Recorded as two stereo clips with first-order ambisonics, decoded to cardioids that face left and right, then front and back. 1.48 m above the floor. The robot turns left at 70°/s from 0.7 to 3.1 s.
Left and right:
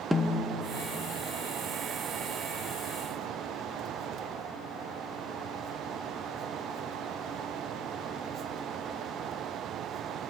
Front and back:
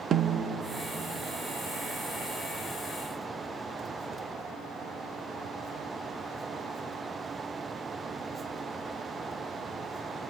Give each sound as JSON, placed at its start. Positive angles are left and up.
{"t": 0.1, "sound": "a snare drum", "azimuth_deg": 180, "distance_m": 0.9}